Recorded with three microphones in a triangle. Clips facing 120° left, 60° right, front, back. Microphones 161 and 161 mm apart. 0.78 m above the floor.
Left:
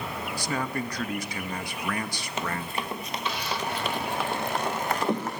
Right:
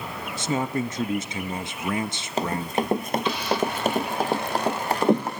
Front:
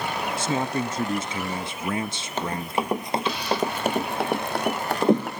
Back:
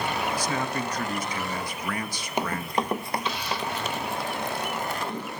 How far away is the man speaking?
About 0.9 m.